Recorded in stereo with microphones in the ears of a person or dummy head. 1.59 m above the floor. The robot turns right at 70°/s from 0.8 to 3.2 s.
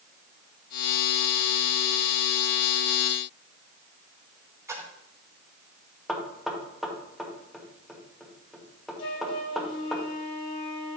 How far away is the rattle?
No rattle in this recording.